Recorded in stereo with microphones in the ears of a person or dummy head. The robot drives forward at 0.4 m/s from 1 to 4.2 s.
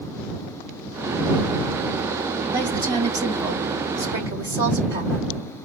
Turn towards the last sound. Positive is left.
turn(degrees=-20)  # may be behind; listen again after turning